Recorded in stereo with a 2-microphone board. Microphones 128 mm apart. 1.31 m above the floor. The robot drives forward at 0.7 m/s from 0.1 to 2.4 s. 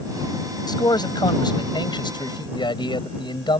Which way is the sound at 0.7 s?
35° left (ahead or behind).